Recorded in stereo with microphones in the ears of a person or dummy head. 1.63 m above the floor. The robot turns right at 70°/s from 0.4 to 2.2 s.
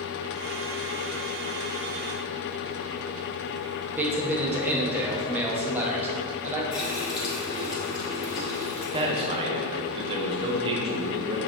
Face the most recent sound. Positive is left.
turn(degrees=-30)  # may be behind; listen again after turning